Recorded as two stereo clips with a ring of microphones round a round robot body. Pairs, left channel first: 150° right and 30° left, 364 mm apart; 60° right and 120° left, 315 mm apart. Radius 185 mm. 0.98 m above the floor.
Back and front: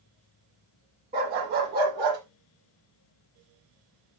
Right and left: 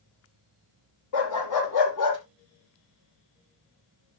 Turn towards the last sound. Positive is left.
turn(degrees=-35)